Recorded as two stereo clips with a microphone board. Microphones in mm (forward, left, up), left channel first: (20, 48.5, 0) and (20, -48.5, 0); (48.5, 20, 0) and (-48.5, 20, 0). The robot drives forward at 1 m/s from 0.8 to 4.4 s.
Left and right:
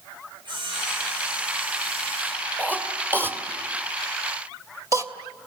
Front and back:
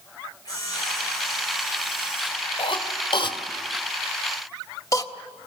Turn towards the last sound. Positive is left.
turn(degrees=-45)